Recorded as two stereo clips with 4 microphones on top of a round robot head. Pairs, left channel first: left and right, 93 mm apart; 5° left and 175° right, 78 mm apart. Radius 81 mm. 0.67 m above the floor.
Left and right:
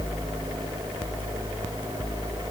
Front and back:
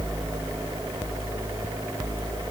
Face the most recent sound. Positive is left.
No sound to turn to.